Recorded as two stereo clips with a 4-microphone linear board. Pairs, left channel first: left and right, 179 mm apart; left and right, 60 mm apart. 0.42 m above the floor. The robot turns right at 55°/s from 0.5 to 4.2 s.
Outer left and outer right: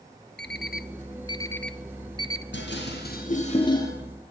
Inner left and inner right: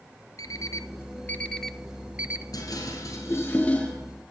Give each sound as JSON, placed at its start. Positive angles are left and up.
{"t": 0.4, "sound": "an alarm clock", "side_deg": 65, "distance_m": 1.2}
{"t": 2.5, "sound": "dishes clattering", "side_deg": 85, "distance_m": 6.0}